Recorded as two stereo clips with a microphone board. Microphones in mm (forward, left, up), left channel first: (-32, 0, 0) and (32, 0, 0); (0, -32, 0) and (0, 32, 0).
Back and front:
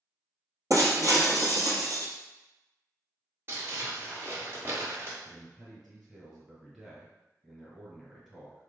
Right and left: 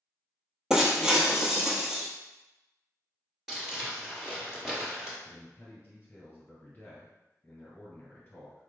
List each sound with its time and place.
0.7 s breaking glass: 10° left, 1.0 m
3.5 s crumpling: 10° left, 1.7 m
5.2 s a man speaking: 80° right, 1.8 m